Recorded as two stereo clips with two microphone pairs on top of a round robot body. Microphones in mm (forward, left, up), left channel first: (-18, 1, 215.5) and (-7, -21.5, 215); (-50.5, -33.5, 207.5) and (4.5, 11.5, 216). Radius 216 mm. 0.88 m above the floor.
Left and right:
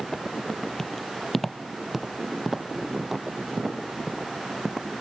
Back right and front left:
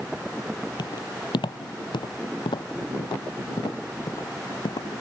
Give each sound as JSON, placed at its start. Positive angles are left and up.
{"t": 0.8, "sound": "footsteps", "azimuth_deg": -165}